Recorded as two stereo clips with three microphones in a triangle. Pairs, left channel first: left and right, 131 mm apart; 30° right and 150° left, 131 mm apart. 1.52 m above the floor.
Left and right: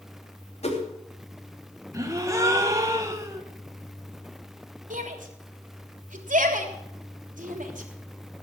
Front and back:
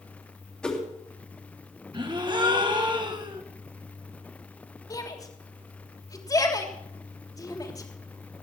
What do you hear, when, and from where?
0.6 s a whoosh: 55° left, 3 m
1.9 s a gasp: 155° right, 1.9 m
4.9 s a shout: 90° right, 3 m